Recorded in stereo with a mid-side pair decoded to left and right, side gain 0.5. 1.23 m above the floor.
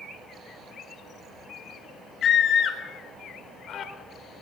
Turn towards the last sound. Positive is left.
turn(degrees=55)